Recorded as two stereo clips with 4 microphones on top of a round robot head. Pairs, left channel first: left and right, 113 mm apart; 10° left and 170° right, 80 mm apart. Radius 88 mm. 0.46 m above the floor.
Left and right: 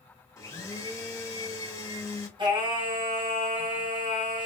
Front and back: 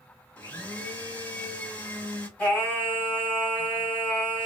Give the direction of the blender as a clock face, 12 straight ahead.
10 o'clock.